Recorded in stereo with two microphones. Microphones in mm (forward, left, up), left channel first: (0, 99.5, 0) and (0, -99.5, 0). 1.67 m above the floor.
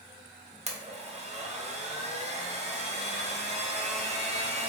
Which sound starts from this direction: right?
A blender, at 0.7 s.